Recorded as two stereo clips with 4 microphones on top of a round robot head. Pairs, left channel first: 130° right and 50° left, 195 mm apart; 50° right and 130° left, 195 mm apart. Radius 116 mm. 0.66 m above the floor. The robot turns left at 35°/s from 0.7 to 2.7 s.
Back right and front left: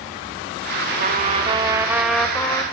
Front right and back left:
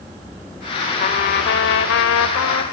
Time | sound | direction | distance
1.0 | a trumpet | straight ahead | 1.1 m